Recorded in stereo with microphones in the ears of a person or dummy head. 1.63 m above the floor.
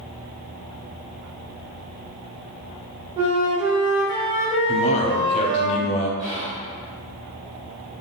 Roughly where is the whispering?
Right.